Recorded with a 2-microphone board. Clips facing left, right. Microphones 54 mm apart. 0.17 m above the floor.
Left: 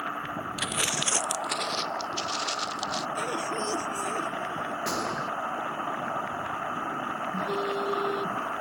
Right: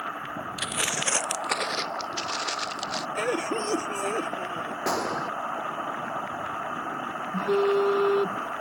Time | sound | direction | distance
0.6 | footsteps | 5° left (ahead or behind) | ?
3.1 | a cough | 60° right (ahead or behind) | ?
4.9 | a gunshot | 80° right | ?
7.3 | a phone buzzing | 60° right (ahead or behind) | ?